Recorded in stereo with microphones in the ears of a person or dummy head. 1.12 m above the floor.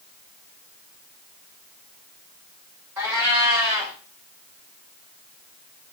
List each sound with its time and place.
3.0 s a cat meowing: 15° right (ahead or behind), 1.7 m